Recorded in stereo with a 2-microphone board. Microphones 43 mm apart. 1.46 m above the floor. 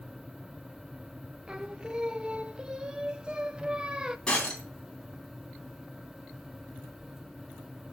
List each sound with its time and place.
1.5 s singing: 20° right (ahead or behind), 0.6 m
4.3 s breaking glass: 15° left (ahead or behind), 3.5 m